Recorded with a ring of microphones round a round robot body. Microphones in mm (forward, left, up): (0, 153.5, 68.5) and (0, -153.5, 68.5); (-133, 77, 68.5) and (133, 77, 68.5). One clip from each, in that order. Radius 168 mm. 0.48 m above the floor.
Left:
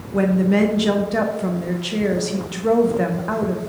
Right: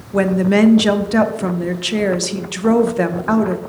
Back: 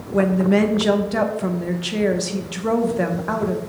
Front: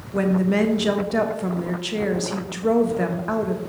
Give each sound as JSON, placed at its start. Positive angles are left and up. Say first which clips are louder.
{"t": 0.1, "sound": "a woman speaking", "louder": "right 4 dB, back 3 dB", "azimuth_deg": -90, "distance_m": 0.8}